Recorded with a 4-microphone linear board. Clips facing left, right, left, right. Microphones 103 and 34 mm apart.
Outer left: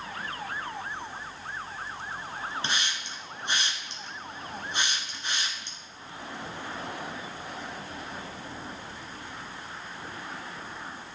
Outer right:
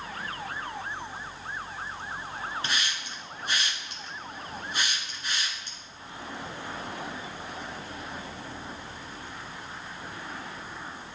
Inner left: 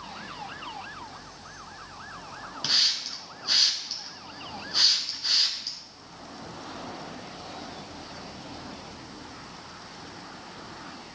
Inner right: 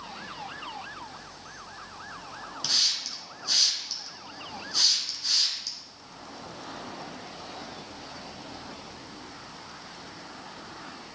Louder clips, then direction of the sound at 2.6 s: Even, inner left 2 dB; 25° left (ahead or behind).